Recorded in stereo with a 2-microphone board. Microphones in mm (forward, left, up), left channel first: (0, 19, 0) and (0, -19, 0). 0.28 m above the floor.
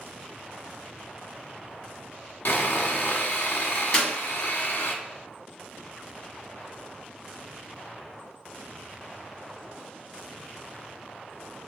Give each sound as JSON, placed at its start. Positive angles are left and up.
{"t": 2.5, "sound": "sawing", "side_deg": 70, "distance_m": 0.8}
{"t": 3.9, "sound": "a clap", "side_deg": 25, "distance_m": 1.7}